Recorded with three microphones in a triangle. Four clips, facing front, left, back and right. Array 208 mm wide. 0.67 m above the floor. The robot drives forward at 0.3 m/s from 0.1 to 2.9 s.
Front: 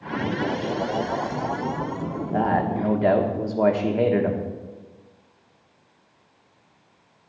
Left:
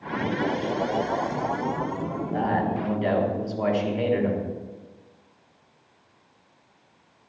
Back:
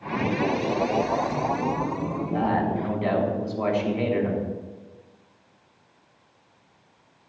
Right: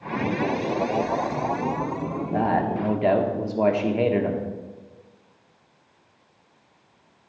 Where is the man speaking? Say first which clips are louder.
Right 2 dB, front 2 dB; 35° right, 1.3 m; by 4.4 s 40° right, 1.2 m.